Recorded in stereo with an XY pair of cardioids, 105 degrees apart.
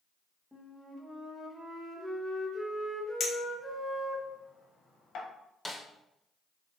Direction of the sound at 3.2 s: 65° left.